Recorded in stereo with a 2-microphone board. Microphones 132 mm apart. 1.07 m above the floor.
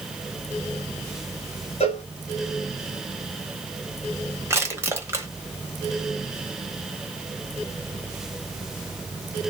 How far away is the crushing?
About 0.8 m.